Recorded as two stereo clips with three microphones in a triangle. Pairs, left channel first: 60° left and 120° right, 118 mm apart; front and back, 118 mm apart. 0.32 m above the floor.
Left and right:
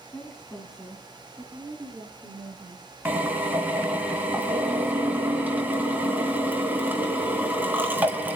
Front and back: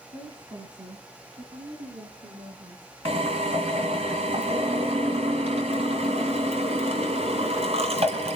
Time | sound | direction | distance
0.1 | a woman speaking | 135° left | 2.5 m
3.0 | a drill | 165° left | 2 m